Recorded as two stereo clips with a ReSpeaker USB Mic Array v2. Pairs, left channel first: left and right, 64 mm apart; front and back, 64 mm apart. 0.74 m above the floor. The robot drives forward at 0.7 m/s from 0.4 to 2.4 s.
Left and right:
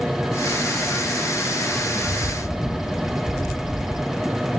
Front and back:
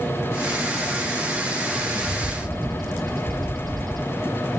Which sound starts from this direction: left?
A bird, at 2.0 s.